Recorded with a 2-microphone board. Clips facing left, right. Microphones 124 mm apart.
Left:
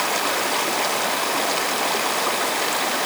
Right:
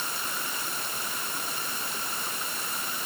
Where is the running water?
85° left.